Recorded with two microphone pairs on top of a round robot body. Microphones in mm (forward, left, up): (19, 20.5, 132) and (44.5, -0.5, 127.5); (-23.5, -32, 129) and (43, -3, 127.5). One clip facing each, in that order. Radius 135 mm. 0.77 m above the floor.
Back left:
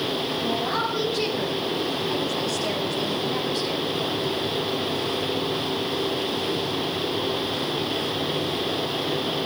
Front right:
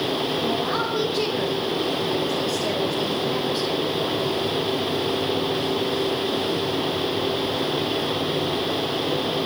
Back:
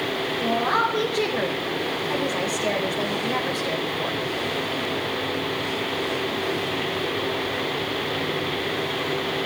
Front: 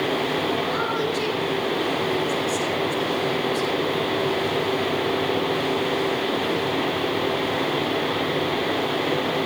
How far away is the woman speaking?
About 4.5 m.